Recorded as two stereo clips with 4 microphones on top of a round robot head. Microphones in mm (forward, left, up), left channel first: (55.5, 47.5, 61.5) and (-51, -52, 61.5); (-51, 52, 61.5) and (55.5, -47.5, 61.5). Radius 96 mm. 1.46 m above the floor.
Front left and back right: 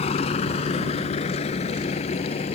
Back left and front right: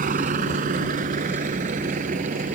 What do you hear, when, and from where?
0.0 s a vehicle: 5° right